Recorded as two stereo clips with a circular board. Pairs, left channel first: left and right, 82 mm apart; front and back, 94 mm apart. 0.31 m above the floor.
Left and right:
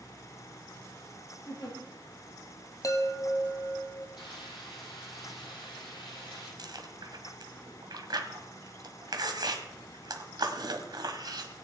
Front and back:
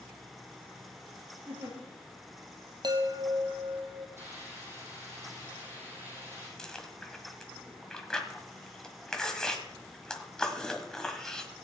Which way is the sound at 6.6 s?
80° right.